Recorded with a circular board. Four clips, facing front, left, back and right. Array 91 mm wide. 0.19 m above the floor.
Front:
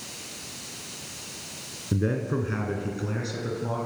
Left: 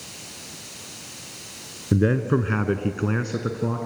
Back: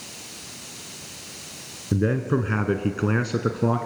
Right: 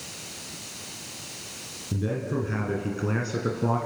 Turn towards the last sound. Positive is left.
turn(degrees=-170)